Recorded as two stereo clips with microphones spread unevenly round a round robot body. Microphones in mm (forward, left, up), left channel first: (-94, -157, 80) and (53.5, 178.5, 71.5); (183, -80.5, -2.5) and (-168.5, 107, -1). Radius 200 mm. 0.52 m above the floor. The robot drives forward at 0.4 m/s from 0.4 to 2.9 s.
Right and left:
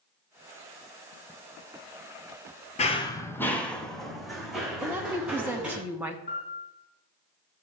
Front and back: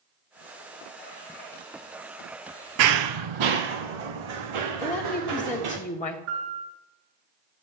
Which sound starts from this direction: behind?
Running footsteps, at 2.8 s.